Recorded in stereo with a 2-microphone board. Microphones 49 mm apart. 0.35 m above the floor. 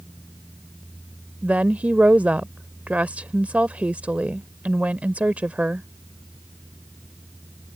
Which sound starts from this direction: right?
A woman speaking, at 1.4 s.